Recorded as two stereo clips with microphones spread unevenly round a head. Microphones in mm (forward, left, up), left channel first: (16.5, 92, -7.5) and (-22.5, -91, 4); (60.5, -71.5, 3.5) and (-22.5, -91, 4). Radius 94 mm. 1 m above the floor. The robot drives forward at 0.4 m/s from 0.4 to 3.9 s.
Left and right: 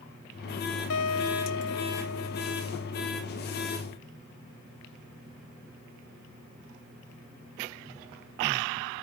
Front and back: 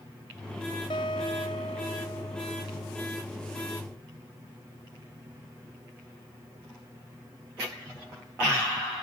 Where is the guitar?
70° left; by 3.1 s 80° left.